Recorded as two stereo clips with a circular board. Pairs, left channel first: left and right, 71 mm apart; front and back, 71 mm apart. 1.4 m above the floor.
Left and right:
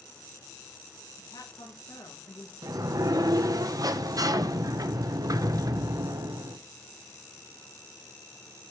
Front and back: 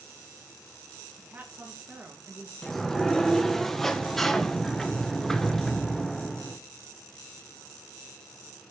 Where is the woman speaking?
115° left, 1.8 m.